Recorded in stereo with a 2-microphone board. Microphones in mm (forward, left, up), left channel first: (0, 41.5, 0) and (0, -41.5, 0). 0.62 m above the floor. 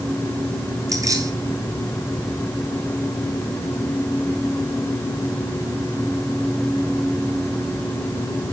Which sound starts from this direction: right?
Keys jangling, at 0.9 s.